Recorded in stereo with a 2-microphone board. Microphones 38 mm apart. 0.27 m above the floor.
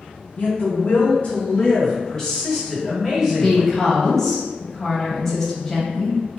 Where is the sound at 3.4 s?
10° left (ahead or behind), 1.1 m.